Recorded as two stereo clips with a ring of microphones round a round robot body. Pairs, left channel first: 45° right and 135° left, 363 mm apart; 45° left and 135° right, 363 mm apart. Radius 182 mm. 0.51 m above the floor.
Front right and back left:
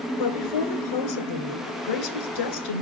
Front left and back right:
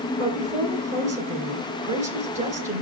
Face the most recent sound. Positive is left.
turn(degrees=-65)